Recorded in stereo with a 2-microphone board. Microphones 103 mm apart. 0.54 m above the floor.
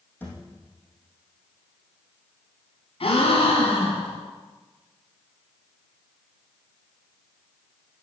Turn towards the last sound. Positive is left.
turn(degrees=65)  # may be behind; listen again after turning